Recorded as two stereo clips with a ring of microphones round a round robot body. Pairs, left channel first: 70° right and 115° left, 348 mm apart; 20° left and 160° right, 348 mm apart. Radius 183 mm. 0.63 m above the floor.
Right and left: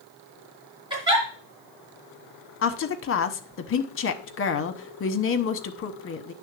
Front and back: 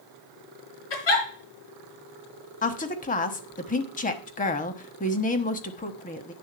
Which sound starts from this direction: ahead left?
A giggle, at 0.9 s.